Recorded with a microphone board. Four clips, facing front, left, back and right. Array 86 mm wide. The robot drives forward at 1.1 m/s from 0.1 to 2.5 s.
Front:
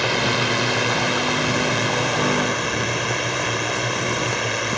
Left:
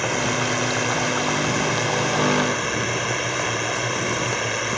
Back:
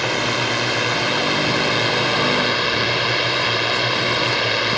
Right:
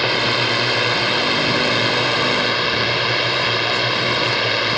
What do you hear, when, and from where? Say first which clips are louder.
0.0 s a drone: right 3 dB, even; 90° right; by 4.8 s 125° right